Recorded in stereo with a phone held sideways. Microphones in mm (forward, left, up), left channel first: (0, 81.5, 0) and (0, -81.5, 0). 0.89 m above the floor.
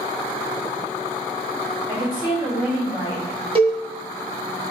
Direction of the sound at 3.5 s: 35° right (ahead or behind).